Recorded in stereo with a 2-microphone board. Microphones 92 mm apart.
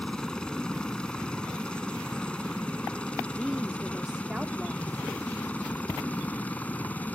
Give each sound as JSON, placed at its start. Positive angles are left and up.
{"t": 0.0, "sound": "a helicopter", "side_deg": 10}
{"t": 3.3, "sound": "a woman speaking", "side_deg": -10}